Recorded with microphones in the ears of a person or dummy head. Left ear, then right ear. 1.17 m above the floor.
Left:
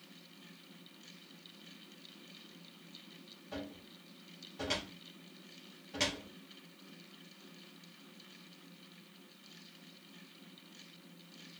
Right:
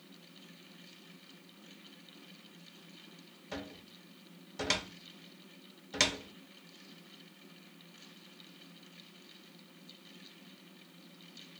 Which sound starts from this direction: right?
A cupboard door, at 3.5 s.